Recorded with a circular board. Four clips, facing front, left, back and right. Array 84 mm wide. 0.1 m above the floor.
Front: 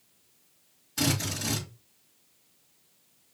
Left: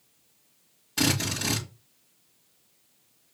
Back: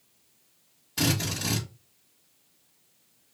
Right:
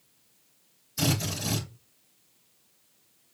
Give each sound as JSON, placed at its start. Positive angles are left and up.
{"t": 1.0, "sound": "a drill", "azimuth_deg": 105, "distance_m": 3.5}